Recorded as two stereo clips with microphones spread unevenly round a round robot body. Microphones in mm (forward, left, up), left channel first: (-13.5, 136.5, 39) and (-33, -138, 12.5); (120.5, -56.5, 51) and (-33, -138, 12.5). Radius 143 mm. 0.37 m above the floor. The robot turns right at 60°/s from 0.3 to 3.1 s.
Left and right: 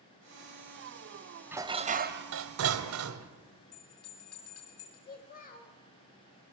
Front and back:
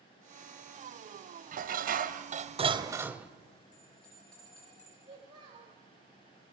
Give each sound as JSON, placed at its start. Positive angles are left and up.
{"t": 1.5, "sound": "dishes clattering", "azimuth_deg": -175, "distance_m": 1.2}
{"t": 3.7, "sound": "a bell", "azimuth_deg": 115, "distance_m": 5.5}
{"t": 5.1, "sound": "a child speaking", "azimuth_deg": 145, "distance_m": 1.3}